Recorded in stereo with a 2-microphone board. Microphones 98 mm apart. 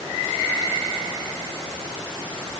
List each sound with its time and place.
Only background noise.